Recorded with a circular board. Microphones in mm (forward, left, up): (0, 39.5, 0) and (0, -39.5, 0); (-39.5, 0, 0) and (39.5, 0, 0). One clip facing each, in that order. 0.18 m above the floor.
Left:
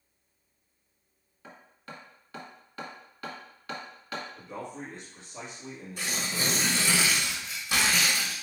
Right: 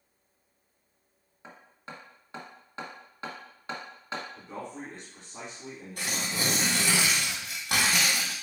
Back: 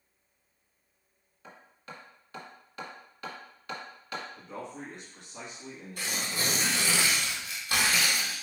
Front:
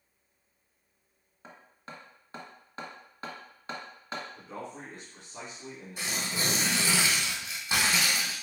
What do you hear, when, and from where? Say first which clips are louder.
1.4 s hammering: right 1 dB, even; 40° right, 1.6 m
4.4 s a man speaking: even, even; 85° right, 2 m
6.0 s tearing paper: even, even; 75° right, 2 m